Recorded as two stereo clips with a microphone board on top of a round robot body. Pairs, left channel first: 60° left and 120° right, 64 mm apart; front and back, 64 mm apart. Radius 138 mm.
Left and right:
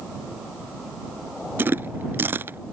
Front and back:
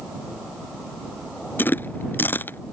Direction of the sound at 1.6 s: 60° right.